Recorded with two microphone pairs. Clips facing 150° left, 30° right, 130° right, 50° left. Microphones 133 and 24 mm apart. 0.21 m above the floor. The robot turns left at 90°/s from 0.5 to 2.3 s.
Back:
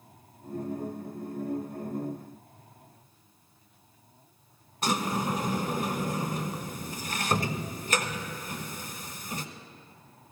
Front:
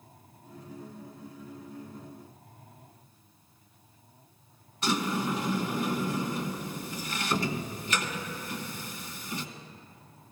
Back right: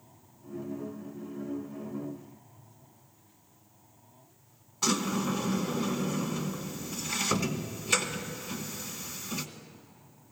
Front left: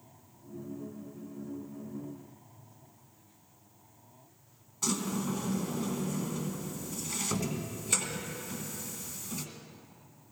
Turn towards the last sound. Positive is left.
turn(degrees=180)